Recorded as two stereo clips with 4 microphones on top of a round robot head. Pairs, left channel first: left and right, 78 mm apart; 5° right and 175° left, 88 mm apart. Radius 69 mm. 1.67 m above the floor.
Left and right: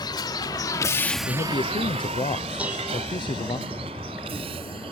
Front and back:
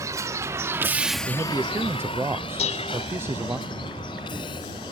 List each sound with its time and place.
0.0 s a vehicle: 120° left; by 4.9 s 60° right
1.3 s a man speaking: 110° left
2.6 s dishes clattering: 10° right